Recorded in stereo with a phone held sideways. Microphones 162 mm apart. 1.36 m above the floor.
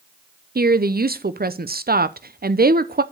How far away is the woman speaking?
About 0.5 m.